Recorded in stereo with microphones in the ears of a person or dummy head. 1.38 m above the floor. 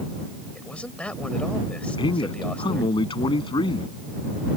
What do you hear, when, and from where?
0.6 s a man speaking: 5° left (ahead or behind)
2.0 s a man speaking: 20° left (ahead or behind)